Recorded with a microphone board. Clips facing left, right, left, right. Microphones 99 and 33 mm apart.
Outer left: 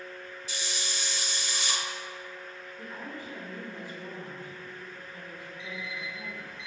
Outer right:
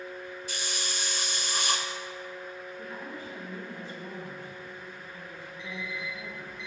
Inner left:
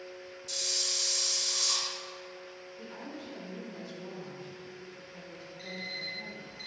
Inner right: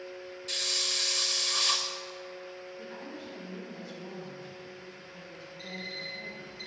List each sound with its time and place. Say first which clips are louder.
0.5 s a hiss: outer left 1 dB, inner right 3 dB; 50° right (ahead or behind), 0.8 m
2.8 s a woman speaking: outer left 2 dB, inner left 2 dB; 20° left (ahead or behind), 1.5 m
5.6 s an alarm clock: outer right 2 dB, even; centre (ahead or behind), 2 m